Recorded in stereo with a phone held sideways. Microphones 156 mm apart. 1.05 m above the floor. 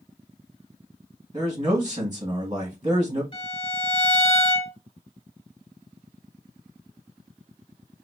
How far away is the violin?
About 2 m.